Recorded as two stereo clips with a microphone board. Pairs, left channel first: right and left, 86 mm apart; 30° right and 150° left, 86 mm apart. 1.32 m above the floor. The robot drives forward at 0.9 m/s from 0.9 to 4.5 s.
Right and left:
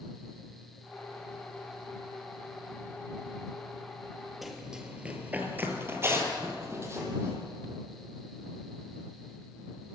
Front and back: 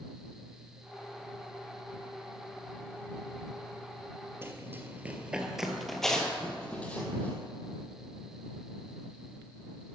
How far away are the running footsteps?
About 1.4 m.